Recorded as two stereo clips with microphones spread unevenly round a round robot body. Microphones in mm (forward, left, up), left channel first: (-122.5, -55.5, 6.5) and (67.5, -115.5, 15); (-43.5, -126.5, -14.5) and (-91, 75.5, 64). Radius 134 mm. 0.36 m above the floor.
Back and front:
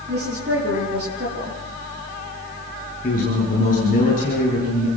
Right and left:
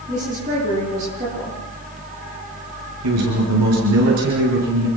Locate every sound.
0.1 s a woman speaking: 35° left, 8.5 m
3.0 s a man speaking: 100° left, 7.5 m